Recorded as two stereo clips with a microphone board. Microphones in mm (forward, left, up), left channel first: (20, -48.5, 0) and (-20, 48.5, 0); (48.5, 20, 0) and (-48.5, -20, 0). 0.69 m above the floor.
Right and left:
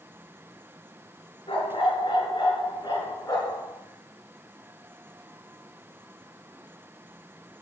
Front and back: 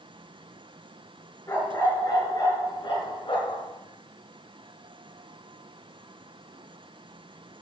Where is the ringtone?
No ringtone in this recording.